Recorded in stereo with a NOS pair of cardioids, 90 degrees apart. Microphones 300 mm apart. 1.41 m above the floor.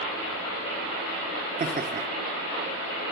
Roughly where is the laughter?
Ahead right.